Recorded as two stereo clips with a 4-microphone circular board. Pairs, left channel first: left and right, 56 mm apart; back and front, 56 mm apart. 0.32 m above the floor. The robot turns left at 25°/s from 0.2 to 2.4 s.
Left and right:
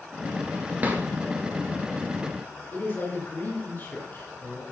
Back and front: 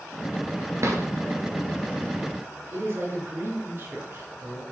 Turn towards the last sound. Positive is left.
turn(degrees=40)